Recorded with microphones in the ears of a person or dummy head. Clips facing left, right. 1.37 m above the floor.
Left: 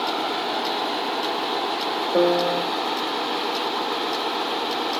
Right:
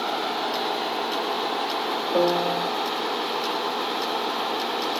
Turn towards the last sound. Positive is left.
turn(degrees=15)  # may be behind; listen again after turning